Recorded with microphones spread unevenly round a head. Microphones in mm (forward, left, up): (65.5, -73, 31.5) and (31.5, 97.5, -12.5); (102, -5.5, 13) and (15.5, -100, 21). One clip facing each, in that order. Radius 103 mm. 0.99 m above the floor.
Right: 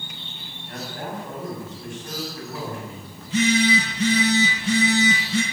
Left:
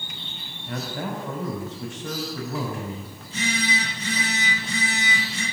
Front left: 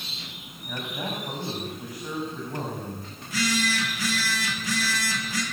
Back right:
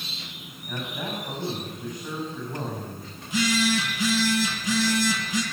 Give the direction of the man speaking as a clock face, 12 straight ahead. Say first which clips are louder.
Left 3 dB, even; 7 o'clock.